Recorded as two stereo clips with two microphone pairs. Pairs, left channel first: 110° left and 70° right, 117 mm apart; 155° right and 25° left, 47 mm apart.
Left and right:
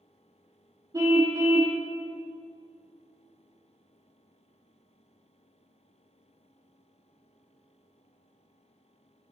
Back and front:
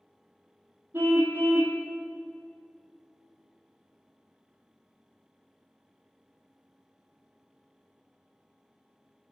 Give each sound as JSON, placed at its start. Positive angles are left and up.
{"t": 0.9, "sound": "a car horn", "azimuth_deg": -10, "distance_m": 2.0}